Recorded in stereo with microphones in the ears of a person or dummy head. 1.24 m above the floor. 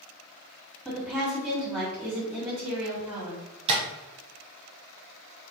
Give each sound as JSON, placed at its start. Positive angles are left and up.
{"t": 0.8, "sound": "a woman speaking", "side_deg": -5, "distance_m": 1.9}
{"t": 3.7, "sound": "tapping", "side_deg": -30, "distance_m": 1.0}